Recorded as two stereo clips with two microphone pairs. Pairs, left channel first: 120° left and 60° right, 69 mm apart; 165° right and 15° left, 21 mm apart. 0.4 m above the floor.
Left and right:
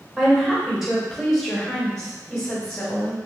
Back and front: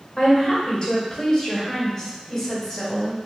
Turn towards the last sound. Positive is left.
turn(degrees=120)